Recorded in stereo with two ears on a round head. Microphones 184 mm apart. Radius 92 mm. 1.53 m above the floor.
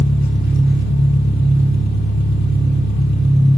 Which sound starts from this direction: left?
An engine running, at 0.0 s.